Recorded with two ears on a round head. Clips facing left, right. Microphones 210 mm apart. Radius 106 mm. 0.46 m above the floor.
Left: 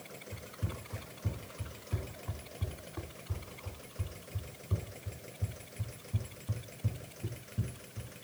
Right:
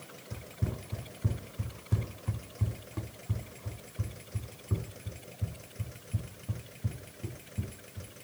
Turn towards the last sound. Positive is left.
turn(degrees=-5)  # may be behind; listen again after turning